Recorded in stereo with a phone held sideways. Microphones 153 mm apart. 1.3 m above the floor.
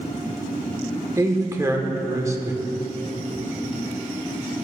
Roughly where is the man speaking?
Right.